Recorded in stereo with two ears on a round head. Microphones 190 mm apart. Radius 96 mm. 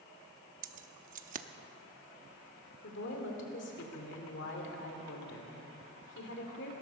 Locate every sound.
0.6 s keys jangling: 40° right (ahead or behind), 0.8 m
2.8 s a woman speaking: 60° left (ahead or behind), 2 m